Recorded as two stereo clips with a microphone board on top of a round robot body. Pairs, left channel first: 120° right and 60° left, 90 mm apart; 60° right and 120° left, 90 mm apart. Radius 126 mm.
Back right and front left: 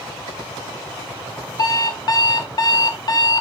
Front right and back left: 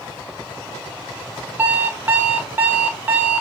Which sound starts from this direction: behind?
An alarm clock, at 1.6 s.